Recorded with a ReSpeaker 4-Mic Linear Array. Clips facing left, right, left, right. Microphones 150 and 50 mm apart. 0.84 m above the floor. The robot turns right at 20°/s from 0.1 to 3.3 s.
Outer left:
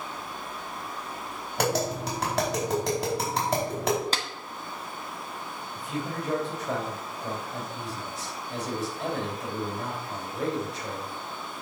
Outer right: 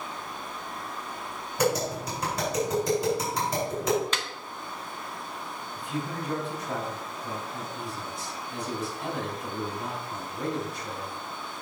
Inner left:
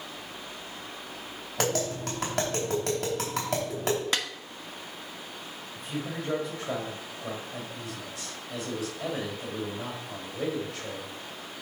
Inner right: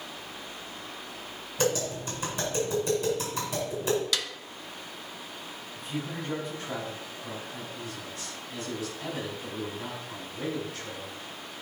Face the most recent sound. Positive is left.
turn(degrees=75)  # may be behind; listen again after turning